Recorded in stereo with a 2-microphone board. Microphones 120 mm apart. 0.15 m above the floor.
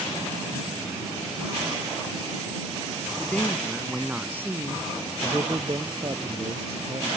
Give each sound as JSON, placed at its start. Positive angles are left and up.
{"t": 3.2, "sound": "a man speaking", "side_deg": 15}
{"t": 5.2, "sound": "a man speaking", "side_deg": -40}